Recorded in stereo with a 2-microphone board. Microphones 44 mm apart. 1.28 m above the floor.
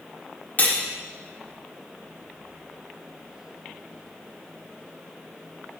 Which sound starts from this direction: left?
Cutlery clinking, at 0.6 s.